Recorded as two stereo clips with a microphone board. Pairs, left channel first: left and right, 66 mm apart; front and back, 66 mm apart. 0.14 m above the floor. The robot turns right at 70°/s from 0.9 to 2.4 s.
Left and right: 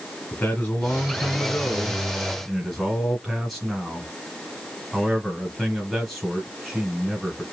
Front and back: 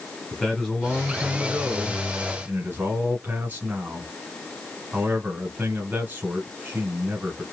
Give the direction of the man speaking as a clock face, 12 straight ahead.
9 o'clock.